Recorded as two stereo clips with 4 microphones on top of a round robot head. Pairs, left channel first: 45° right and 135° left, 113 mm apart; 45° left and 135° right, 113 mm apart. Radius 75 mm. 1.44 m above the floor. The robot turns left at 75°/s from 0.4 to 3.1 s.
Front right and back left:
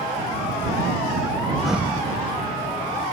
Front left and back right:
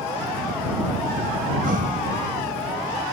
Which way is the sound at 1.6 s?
135° right.